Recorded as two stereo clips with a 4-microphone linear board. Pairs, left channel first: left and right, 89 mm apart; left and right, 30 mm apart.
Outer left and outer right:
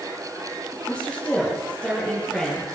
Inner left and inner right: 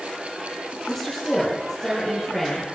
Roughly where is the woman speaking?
Centre.